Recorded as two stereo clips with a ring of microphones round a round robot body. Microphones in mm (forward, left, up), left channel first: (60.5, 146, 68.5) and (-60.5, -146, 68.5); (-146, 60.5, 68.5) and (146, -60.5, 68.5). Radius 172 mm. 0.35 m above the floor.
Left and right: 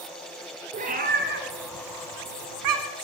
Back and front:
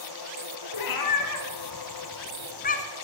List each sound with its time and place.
0.7 s a cat meowing: straight behind, 2 m; by 2.9 s 135° right, 1.7 m